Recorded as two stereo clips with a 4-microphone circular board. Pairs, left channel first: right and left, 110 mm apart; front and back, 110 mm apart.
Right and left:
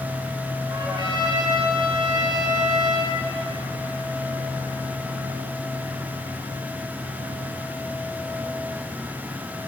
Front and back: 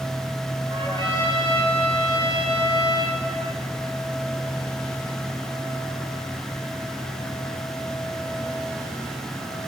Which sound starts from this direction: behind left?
A trumpet, at 0.7 s.